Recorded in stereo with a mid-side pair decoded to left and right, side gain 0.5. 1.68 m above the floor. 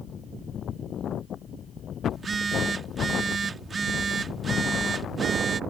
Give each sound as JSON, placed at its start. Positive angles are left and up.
{"t": 2.1, "sound": "a phone buzzing", "azimuth_deg": -35}